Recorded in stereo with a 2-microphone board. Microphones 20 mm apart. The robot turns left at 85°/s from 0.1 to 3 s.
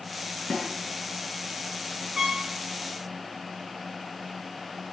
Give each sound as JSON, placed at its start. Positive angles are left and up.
{"t": 0.5, "sound": "a snare drum", "side_deg": 70, "distance_m": 6.0}
{"t": 2.2, "sound": "a trumpet", "side_deg": -30, "distance_m": 3.5}